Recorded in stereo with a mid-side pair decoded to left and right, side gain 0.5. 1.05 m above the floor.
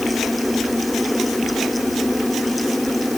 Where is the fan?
Straight ahead.